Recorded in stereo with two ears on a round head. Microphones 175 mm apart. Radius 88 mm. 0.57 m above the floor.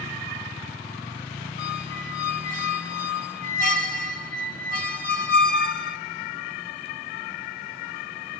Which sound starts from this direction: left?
A squeak, at 1.6 s.